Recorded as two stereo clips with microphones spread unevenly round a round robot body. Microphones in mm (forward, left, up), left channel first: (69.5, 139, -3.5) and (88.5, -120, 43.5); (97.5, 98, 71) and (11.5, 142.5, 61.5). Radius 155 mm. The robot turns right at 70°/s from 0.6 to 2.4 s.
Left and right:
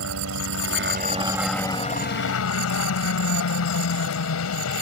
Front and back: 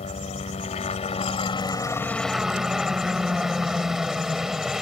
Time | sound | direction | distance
0.0 | a helicopter | 60° right | ?